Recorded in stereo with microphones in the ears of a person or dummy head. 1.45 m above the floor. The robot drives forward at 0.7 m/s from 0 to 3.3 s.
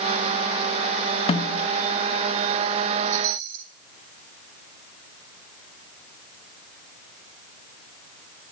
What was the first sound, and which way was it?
A snare drum, 30° left (ahead or behind).